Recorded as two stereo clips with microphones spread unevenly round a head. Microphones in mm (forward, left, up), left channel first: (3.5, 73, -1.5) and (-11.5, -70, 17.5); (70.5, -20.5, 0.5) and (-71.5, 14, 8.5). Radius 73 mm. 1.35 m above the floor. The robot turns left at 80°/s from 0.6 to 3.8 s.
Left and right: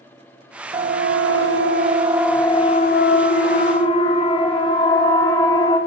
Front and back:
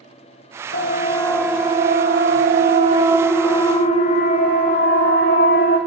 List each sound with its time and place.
0.7 s a siren: 35° right, 2.5 m; by 5.8 s 15° left, 4 m